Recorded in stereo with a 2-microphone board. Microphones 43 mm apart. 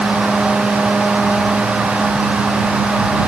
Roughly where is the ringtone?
I don't hear a ringtone.